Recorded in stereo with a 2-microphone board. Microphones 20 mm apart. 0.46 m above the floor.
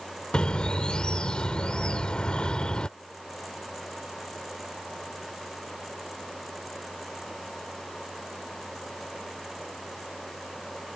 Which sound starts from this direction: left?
A bird, at 0.3 s.